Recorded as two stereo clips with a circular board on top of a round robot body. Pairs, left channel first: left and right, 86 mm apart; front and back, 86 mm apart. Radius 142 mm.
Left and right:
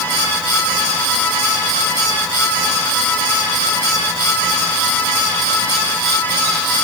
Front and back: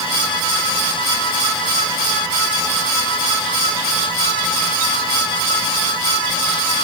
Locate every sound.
Only background noise.